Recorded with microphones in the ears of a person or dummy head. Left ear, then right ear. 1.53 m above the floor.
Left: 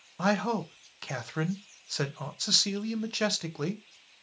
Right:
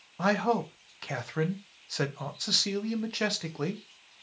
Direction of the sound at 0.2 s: 10° left (ahead or behind).